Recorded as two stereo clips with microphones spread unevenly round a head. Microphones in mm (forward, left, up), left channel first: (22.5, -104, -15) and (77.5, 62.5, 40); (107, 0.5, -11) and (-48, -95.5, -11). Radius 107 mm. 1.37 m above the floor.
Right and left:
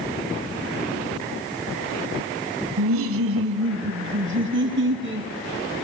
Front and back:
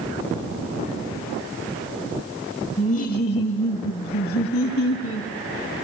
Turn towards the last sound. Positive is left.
turn(degrees=50)